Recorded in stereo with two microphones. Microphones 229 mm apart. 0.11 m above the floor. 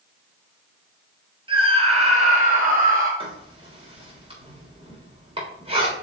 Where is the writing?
25° right (ahead or behind), 3.5 m.